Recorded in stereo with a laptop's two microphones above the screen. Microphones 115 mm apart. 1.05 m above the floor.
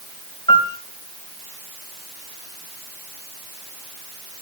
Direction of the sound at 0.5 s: 50° left (ahead or behind).